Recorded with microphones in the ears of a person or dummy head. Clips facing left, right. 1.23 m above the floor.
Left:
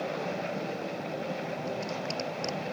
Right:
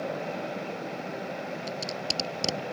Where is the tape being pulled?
55° right (ahead or behind).